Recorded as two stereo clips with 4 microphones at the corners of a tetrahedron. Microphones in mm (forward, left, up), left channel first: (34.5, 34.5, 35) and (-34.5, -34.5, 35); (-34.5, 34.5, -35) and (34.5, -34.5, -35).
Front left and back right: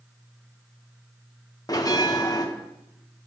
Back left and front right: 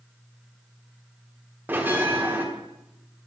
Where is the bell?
15° left, 1.2 m.